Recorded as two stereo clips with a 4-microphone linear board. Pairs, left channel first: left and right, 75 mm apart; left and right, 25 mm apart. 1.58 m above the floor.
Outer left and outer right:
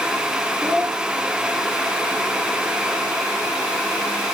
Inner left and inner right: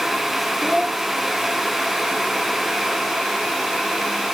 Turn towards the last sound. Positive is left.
turn(degrees=-40)  # may be behind; listen again after turning